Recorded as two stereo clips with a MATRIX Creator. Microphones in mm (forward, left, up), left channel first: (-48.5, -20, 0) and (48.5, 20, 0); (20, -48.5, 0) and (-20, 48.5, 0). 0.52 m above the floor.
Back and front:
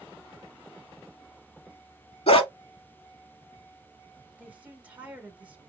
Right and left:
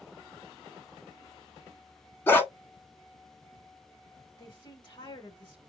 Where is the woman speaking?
50° right, 1.8 m.